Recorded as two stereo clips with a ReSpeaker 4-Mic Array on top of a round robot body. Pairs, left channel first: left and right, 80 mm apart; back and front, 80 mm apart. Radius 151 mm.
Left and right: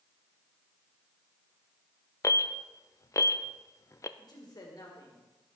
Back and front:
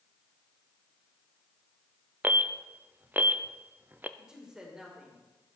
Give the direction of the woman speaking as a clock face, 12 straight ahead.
9 o'clock.